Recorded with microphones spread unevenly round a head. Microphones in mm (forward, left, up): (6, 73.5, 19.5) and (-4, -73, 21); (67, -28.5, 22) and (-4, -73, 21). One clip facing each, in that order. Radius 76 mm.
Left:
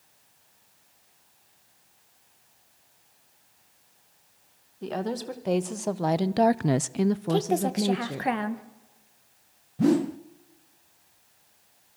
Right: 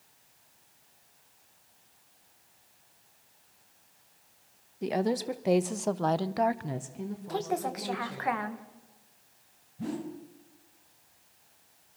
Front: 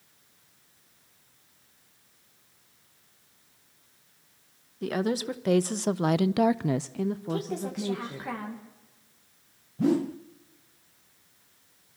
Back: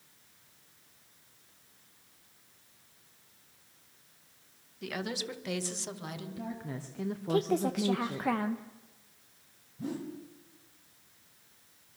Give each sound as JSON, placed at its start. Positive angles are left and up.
{"t": 4.8, "sound": "a woman speaking", "azimuth_deg": -20, "distance_m": 1.7}
{"t": 7.3, "sound": "a woman speaking", "azimuth_deg": 145, "distance_m": 1.4}
{"t": 9.8, "sound": "a whoosh", "azimuth_deg": 75, "distance_m": 0.7}